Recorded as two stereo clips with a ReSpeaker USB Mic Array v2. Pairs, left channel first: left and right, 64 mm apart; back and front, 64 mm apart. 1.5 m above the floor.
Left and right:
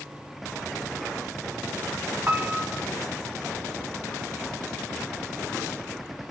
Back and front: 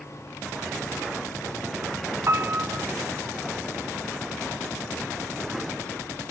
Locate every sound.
2.3 s a piano: 35° right, 0.8 m